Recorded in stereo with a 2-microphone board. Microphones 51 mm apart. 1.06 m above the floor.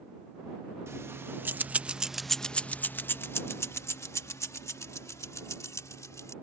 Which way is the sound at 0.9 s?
55° right (ahead or behind).